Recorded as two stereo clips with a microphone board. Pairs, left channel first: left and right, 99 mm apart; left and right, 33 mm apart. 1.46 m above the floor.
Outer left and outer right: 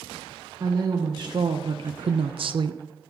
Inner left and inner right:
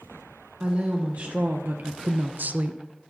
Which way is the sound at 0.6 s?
35° right (ahead or behind).